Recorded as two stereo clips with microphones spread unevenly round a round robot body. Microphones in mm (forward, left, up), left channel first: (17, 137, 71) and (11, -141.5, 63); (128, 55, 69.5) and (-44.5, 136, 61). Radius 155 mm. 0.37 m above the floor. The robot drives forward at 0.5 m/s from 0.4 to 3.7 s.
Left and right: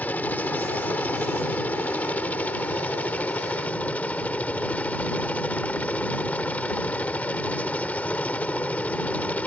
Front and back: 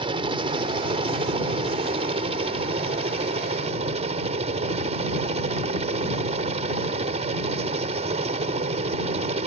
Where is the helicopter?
170° left.